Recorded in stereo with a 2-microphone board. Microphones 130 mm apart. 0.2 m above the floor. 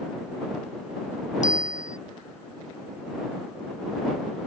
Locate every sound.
1.4 s a bicycle bell: 80° left